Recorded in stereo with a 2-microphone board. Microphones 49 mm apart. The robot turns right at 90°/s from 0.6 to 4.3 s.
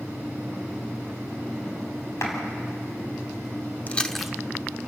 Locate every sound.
2.2 s a clap: 65° left (ahead or behind), 4 m; by 2.4 s 50° left (ahead or behind), 4 m
3.9 s chewing: 30° left (ahead or behind), 0.8 m; by 4.3 s 5° right (ahead or behind), 0.8 m